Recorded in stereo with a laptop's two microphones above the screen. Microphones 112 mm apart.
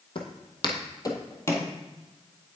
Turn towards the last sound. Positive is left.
turn(degrees=20)  # may be behind; listen again after turning